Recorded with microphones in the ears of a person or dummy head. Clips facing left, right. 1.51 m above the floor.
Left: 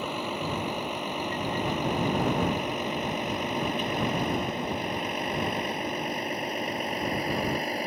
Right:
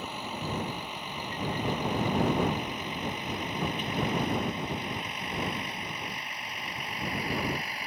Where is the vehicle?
45° left (ahead or behind); by 7.9 s 30° left (ahead or behind).